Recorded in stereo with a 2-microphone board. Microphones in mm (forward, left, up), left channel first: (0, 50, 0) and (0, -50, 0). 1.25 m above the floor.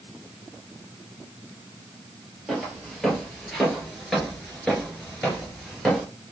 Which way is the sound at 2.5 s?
5° left (ahead or behind).